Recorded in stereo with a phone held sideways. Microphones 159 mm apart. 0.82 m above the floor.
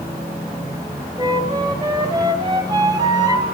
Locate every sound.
1.2 s a flute: 25° right (ahead or behind), 2 m